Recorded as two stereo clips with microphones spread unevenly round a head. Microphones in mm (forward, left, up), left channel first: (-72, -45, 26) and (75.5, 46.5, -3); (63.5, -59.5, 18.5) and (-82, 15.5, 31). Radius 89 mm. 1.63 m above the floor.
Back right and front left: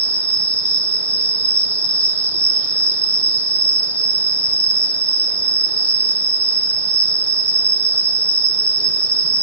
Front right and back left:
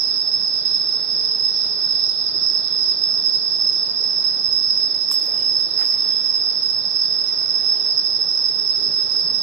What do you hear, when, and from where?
0.0 s an insect: 105° left, 0.7 m